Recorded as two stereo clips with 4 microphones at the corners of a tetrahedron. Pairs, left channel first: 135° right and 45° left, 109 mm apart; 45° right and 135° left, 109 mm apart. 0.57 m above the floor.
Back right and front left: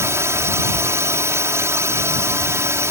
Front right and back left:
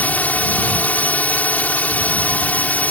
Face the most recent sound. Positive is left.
turn(degrees=15)